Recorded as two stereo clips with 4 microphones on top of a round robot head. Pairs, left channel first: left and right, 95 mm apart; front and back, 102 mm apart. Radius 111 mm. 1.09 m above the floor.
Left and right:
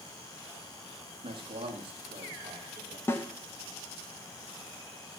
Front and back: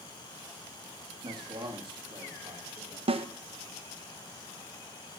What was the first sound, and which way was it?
A man speaking, 125° right.